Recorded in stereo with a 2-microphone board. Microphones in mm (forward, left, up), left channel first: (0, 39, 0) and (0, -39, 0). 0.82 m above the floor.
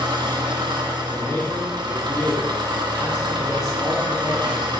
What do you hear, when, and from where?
0.0 s an engine running: 70° right (ahead or behind), 0.8 m
1.1 s a man speaking: 35° left (ahead or behind), 1.1 m